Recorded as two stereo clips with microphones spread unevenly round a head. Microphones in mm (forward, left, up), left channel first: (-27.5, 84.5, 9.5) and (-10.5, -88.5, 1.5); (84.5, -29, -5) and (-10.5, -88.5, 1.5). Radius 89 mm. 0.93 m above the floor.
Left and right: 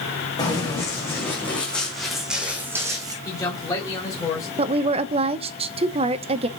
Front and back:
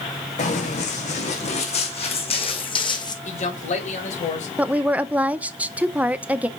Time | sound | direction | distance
0.4 | running footsteps | 25° left | 3 m
3.2 | a man speaking | 20° left | 3.5 m
4.6 | a woman speaking | 75° right | 0.6 m